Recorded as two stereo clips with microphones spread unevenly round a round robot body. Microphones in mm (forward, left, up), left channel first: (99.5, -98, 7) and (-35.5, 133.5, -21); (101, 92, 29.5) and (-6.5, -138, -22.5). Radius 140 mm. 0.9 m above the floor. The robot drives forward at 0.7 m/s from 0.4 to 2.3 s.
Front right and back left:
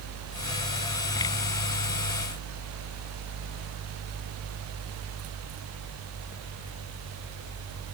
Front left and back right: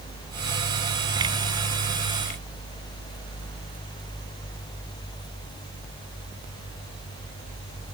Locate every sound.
Only background noise.